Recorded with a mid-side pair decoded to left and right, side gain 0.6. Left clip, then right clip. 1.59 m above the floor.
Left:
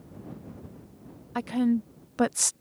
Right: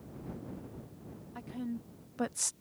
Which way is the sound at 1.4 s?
65° left.